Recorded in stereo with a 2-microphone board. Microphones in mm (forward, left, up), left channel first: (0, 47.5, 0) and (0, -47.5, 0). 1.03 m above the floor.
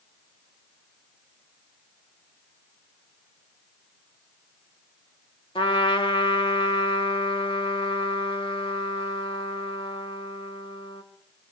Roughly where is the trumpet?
Left.